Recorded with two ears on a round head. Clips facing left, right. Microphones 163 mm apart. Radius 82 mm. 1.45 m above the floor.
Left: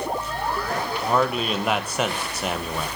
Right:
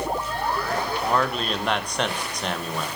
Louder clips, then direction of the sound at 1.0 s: Left 4 dB; 5° left (ahead or behind).